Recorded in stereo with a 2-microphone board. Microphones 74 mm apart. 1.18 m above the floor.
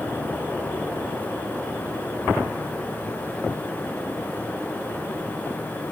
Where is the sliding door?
I don't hear a sliding door.